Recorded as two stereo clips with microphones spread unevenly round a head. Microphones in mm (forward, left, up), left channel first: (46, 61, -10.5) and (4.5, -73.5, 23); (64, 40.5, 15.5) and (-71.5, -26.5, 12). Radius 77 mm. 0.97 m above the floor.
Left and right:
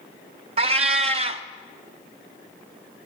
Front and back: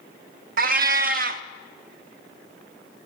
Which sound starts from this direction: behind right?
A cat meowing, at 0.6 s.